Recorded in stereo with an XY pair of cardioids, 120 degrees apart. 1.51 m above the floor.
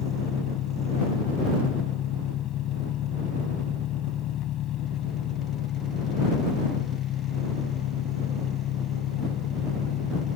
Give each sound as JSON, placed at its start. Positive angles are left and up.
{"t": 0.0, "sound": "an engine running", "azimuth_deg": 65}